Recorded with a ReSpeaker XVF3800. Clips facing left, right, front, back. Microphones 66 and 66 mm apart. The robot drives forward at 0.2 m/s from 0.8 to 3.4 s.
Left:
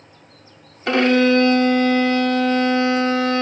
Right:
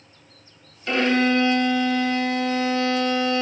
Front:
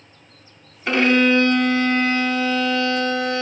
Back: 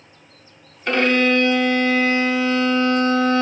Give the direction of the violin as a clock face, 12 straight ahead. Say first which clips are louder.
Left 5 dB, front 1 dB; 9 o'clock.